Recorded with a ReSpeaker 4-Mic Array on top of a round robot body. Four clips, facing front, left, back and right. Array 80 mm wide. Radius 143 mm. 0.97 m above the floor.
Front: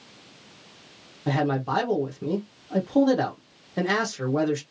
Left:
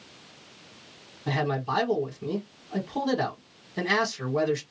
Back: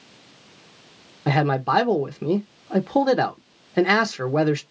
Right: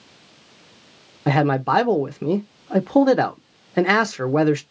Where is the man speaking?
115° right, 0.6 m.